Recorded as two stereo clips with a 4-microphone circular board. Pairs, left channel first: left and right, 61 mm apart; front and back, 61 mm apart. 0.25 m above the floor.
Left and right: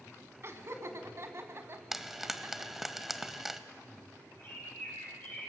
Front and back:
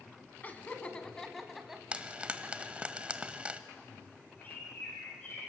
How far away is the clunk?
No clunk in this recording.